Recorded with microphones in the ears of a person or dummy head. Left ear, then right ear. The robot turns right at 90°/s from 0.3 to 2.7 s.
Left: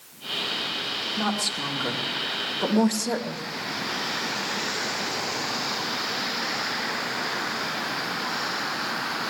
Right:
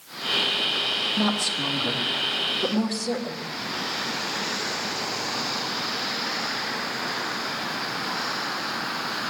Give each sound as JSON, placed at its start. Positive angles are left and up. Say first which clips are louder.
{"t": 1.2, "sound": "a woman speaking", "louder": "right 2 dB", "azimuth_deg": -40, "distance_m": 2.5}